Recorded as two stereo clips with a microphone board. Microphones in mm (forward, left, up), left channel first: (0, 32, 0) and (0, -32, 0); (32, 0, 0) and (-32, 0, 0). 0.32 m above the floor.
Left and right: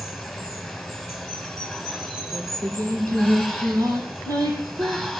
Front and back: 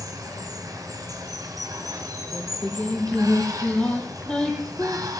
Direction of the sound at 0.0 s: 175° right.